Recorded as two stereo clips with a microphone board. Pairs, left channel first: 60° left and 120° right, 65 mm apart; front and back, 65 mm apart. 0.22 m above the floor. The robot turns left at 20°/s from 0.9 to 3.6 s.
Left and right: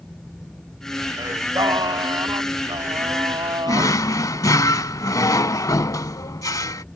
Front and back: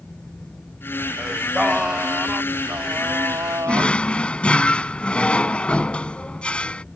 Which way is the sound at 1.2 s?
90° right.